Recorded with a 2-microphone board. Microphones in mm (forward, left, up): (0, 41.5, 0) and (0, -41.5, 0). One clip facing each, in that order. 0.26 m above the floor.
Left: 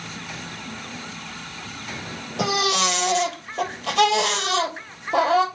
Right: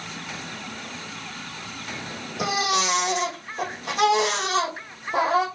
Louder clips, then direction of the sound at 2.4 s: Left 2 dB; 80° left.